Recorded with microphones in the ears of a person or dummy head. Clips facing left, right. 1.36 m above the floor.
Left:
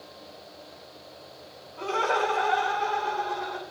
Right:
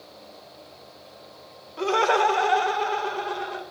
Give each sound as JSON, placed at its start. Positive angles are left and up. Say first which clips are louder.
{"t": 1.8, "sound": "laughter", "louder": "right 5 dB", "side_deg": -70, "distance_m": 1.7}